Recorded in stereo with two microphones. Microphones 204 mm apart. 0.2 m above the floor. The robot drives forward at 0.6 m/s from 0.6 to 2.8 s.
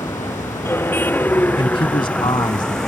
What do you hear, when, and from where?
0.0 s a vehicle: 15° left (ahead or behind); by 2.9 s 5° left (ahead or behind)
1.6 s a man speaking: 30° left (ahead or behind); by 2.8 s 25° left (ahead or behind)